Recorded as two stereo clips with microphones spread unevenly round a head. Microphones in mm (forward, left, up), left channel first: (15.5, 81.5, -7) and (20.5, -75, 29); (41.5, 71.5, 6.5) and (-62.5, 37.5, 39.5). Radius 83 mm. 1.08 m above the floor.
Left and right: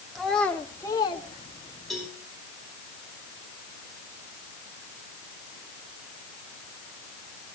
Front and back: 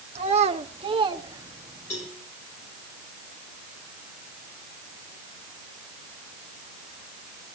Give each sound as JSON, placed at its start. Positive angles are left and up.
{"t": 0.1, "sound": "a child speaking", "azimuth_deg": -175, "distance_m": 1.7}
{"t": 1.9, "sound": "a cowbell", "azimuth_deg": 5, "distance_m": 8.0}